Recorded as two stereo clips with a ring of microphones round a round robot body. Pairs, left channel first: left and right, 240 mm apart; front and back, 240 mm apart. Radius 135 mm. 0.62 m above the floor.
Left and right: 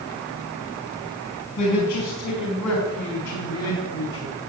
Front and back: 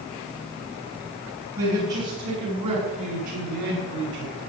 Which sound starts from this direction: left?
A man speaking, at 1.6 s.